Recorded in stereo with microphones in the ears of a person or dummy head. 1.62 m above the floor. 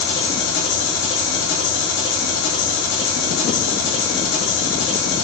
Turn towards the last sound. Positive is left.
turn(degrees=85)